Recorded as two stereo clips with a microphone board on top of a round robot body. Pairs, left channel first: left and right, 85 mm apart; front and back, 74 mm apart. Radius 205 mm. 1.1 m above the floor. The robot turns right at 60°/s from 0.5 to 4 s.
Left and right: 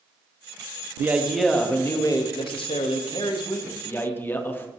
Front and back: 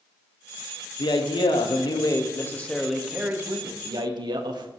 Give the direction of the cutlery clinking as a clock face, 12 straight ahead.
No cutlery clinking in this recording.